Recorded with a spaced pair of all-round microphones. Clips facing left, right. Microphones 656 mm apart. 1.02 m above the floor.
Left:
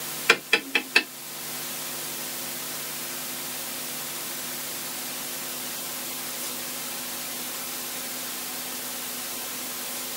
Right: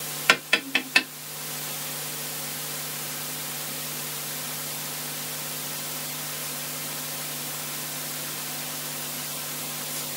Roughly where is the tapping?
Centre.